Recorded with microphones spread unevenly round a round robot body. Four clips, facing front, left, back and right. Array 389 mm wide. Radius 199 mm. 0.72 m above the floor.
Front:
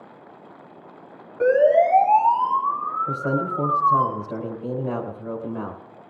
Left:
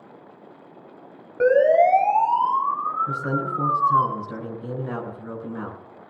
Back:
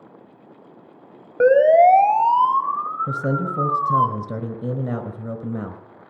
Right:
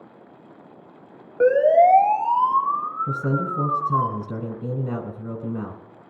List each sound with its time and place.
1.4 s a siren: 155° left, 5 m; by 4.1 s straight behind, 6.5 m
3.1 s a man speaking: 150° right, 4.5 m